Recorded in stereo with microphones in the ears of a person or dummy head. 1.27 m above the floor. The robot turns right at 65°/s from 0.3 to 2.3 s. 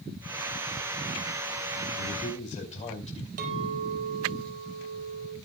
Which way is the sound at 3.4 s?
45° right (ahead or behind).